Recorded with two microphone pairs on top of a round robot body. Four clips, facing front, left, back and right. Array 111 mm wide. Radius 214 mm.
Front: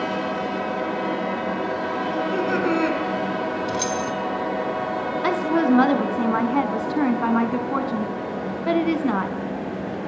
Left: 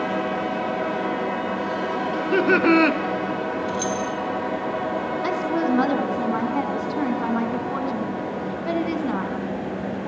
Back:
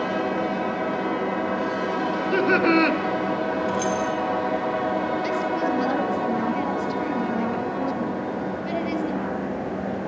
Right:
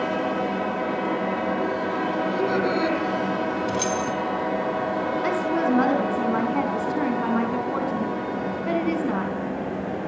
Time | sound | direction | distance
2.1 | laughter | 95° left | 4.5 m
3.7 | keys jangling | 65° right | 3 m
5.2 | a woman speaking | 10° left | 4.5 m